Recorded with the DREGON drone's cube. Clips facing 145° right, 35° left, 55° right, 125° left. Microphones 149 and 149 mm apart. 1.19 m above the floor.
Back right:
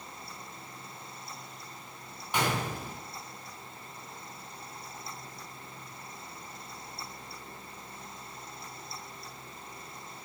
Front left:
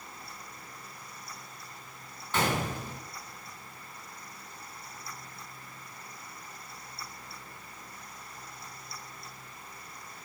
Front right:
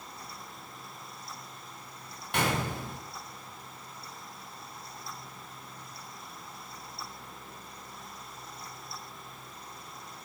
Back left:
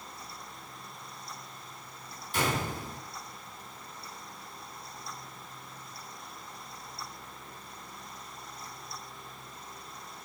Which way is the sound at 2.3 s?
70° right.